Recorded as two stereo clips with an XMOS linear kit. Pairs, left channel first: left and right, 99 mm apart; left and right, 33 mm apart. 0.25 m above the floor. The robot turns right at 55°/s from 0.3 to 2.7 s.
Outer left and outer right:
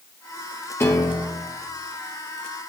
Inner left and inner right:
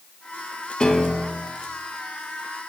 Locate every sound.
0.8 s a piano: 25° left, 2.5 m; by 1.6 s 70° left, 2.5 m